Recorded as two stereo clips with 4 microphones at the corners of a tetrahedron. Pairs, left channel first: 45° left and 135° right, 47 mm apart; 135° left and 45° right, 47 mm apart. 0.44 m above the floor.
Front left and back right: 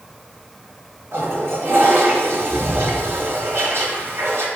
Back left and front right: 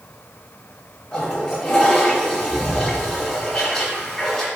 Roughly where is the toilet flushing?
Behind right.